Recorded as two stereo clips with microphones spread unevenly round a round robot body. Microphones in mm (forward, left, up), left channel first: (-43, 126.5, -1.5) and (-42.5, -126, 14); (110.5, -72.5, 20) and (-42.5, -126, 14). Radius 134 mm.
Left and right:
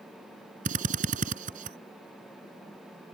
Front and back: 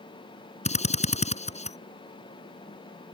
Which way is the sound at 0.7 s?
25° right.